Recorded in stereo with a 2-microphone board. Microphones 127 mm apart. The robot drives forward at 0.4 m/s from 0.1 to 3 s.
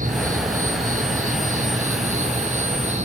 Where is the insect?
85° right, 3 m; by 3.1 s 65° right (ahead or behind), 3 m.